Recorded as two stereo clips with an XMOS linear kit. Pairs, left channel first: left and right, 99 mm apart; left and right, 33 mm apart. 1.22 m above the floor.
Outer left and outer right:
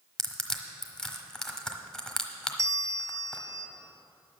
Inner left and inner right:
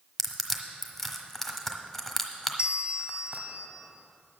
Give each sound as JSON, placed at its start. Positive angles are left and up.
{"t": 0.2, "sound": "crushing", "side_deg": 5, "distance_m": 1.2}
{"t": 2.6, "sound": "a bell", "side_deg": -30, "distance_m": 0.6}